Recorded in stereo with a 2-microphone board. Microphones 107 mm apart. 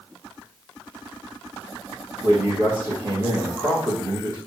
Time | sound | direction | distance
2.2 | a man speaking | 30° right (ahead or behind) | 4 m